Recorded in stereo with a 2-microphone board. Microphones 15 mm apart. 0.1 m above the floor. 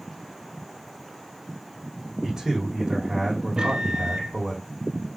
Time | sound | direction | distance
2.2 | a man speaking | 35° right (ahead or behind) | 5 m
3.6 | a microwave | 55° right (ahead or behind) | 2 m